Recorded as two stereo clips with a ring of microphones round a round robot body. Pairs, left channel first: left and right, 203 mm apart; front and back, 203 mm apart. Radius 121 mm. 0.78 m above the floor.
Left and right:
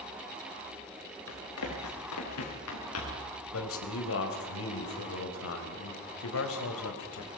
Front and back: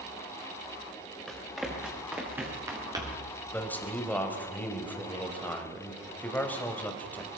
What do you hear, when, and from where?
1.3 s running footsteps: 90° left, 6.5 m; by 3.3 s 110° left, 5.5 m
3.5 s a man speaking: 80° left, 3.5 m